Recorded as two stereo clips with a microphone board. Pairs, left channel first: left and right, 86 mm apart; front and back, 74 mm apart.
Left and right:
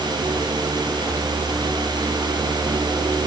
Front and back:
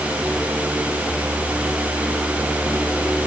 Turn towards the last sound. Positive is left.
No sound to turn to.